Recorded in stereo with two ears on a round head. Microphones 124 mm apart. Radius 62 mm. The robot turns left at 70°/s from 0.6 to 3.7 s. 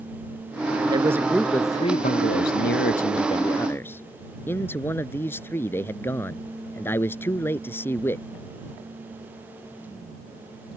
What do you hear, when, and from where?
0.9 s a man speaking: 150° right; by 8.2 s 15° left